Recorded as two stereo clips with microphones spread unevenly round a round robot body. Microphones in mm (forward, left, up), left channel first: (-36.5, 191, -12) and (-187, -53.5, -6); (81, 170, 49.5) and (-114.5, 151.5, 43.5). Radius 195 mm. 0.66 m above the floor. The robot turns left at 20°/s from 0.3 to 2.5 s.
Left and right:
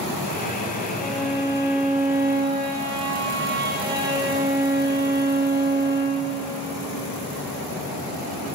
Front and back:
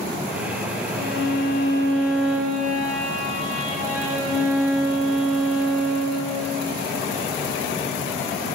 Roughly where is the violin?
Ahead right.